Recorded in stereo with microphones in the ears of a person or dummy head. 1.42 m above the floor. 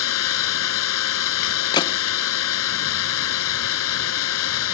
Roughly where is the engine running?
Left.